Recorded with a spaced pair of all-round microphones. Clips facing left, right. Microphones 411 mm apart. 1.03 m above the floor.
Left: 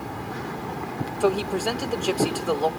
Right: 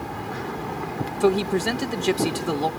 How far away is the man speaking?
About 0.8 m.